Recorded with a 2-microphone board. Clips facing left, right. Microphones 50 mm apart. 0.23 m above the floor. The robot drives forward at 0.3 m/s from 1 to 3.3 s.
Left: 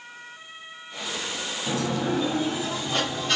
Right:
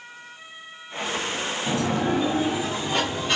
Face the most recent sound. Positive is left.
turn(degrees=-20)  # may be behind; listen again after turning